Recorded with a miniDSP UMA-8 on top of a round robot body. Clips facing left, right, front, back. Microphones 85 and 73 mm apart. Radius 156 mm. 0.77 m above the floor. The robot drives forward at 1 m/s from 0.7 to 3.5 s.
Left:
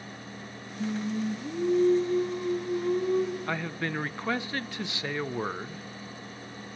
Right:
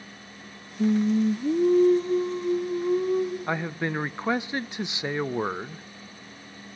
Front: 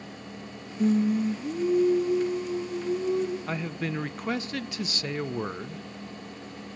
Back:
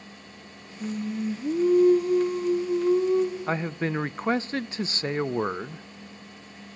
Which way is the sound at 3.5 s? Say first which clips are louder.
Right 3 dB, back 4 dB; 145° right.